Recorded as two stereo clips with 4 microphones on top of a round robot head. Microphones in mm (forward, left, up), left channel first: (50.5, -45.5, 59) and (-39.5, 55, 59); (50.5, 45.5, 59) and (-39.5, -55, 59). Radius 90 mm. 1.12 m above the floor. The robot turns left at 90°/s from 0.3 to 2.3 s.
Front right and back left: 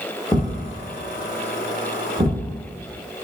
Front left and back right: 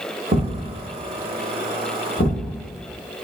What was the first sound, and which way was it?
A thud, 115° right.